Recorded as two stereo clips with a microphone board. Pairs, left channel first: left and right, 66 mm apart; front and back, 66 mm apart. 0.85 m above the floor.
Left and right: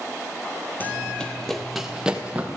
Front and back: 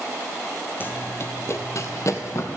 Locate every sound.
0.8 s running footsteps: 40° left, 1.1 m; by 2.5 s 25° right, 1.5 m